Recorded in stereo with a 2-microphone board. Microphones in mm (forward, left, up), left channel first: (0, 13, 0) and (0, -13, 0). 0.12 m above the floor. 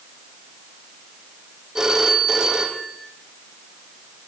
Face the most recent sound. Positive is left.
turn(degrees=-20)  # may be behind; listen again after turning